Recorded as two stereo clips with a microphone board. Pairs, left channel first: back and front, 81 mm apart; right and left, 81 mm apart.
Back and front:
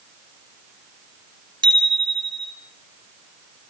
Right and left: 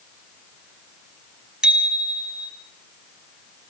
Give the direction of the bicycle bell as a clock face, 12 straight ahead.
12 o'clock.